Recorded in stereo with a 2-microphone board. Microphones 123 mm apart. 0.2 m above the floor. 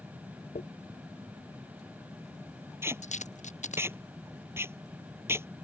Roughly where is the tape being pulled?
Centre.